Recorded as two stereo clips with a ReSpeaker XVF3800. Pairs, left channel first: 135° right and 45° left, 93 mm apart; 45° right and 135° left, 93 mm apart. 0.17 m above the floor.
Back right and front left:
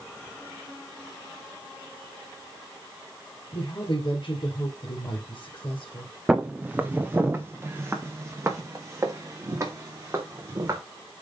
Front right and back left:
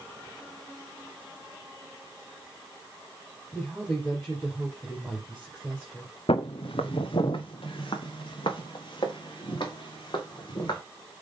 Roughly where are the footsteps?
Ahead right.